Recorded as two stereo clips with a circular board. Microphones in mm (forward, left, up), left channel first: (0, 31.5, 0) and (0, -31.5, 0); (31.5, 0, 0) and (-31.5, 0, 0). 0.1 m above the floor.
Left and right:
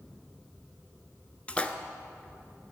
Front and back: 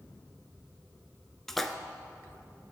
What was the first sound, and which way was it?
A splash, 80° left.